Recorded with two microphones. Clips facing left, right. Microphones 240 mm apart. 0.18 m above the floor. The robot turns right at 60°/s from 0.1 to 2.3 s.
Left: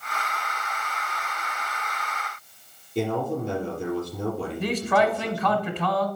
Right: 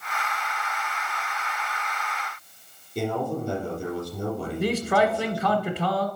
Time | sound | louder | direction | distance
3.0 | a man speaking | left 1 dB | 20° left (ahead or behind) | 4.5 m
4.6 | a man speaking | even | 10° right (ahead or behind) | 1.0 m